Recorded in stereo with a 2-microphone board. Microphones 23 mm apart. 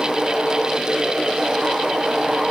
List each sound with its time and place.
Only background noise.